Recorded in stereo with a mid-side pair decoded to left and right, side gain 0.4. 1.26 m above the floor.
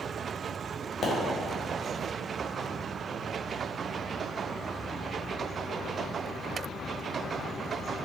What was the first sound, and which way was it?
A pop, 55° left.